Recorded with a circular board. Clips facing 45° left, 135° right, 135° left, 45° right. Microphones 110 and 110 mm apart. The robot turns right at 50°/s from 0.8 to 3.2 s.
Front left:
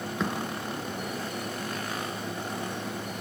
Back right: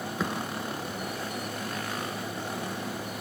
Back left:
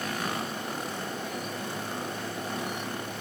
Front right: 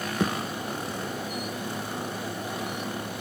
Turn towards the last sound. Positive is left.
turn(degrees=70)